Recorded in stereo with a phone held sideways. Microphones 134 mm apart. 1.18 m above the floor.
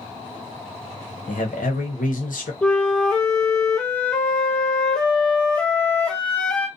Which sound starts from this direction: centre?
A flute, at 2.6 s.